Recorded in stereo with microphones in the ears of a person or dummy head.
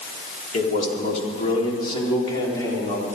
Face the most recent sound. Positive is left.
turn(degrees=20)  # may be behind; listen again after turning